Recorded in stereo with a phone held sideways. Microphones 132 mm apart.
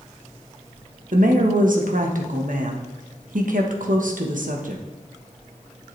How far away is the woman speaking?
About 1.3 m.